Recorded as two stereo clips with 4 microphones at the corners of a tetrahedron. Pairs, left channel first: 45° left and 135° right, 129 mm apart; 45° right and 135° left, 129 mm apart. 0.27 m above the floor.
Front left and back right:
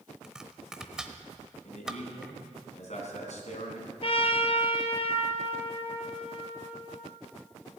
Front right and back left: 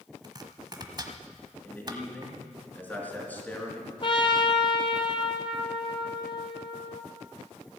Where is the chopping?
145° left, 0.9 m.